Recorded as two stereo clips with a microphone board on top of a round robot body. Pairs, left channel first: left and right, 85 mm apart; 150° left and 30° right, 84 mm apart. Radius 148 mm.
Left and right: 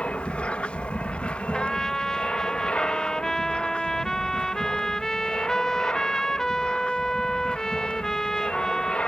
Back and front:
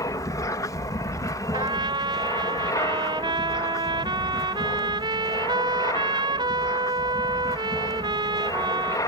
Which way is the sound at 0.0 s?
160° left.